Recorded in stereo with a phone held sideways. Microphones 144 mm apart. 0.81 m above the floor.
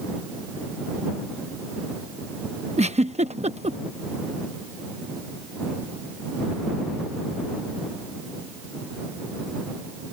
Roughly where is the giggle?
Right.